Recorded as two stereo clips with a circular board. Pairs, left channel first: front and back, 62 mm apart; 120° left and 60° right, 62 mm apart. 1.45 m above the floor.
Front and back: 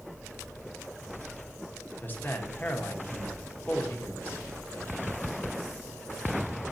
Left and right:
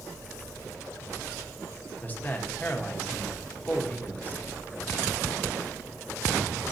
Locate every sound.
2.0 s a man speaking: 60° left, 1.4 m